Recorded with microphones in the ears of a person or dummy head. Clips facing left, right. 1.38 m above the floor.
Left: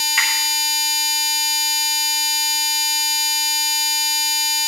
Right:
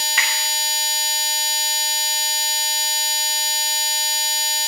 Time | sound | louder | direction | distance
0.2 | a finger snap | even | 35° right (ahead or behind) | 3 m